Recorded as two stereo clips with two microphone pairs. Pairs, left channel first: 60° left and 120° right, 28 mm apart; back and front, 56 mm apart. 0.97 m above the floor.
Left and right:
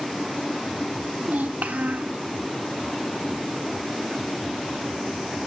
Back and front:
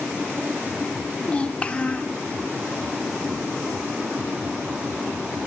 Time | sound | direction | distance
1.2 | a child speaking | 110° right | 0.8 m